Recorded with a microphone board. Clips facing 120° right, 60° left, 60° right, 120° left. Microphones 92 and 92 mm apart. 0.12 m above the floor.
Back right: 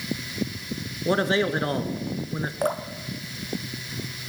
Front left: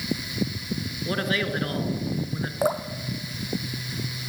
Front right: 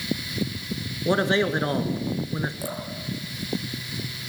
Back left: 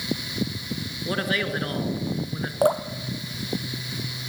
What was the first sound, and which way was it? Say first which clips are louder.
A man speaking: back right 5 dB, front right 5 dB; 95° right.